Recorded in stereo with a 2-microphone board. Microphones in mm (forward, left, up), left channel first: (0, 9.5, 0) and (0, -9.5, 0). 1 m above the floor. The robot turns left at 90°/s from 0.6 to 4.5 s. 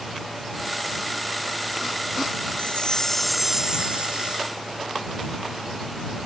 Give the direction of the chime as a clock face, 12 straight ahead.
10 o'clock.